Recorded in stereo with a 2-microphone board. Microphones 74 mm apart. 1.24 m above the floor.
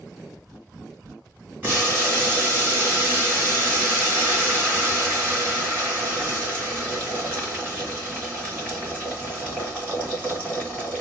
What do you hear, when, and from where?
1.6 s boiling: 25° right (ahead or behind), 2.5 m